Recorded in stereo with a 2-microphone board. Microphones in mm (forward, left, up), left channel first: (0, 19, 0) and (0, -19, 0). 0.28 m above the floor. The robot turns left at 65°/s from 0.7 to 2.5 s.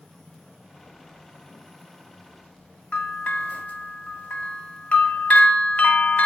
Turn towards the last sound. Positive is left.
turn(degrees=30)  # may be behind; listen again after turning